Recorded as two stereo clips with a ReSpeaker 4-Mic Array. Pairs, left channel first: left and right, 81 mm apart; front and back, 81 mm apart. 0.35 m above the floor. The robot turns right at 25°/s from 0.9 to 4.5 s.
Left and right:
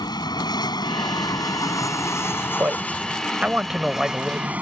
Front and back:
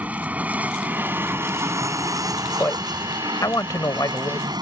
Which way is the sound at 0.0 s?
110° left.